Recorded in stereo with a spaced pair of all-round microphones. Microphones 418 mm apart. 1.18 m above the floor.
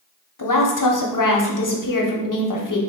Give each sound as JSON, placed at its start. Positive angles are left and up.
{"t": 0.4, "sound": "a woman speaking", "side_deg": 50, "distance_m": 0.6}